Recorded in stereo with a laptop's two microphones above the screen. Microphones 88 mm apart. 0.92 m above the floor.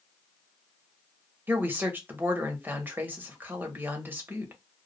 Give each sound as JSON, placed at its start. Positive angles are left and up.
{"t": 1.5, "sound": "a woman speaking", "side_deg": -25, "distance_m": 0.9}